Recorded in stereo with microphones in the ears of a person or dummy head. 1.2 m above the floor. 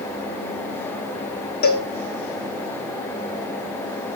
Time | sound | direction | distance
1.6 | a cowbell | 50° left (ahead or behind) | 1.4 m